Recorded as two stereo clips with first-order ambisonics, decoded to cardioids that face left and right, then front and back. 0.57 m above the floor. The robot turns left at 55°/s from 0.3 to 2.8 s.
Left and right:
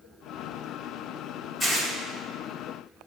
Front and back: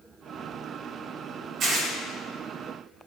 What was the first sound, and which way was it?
Tearing paper, 155° left.